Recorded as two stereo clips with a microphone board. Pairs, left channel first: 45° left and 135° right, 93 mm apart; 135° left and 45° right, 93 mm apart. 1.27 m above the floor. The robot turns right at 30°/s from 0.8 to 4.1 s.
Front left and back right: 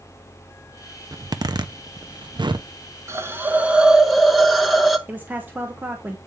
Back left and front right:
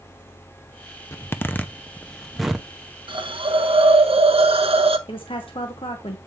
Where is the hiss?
75° right, 0.9 m; by 5.0 s 45° right, 0.9 m.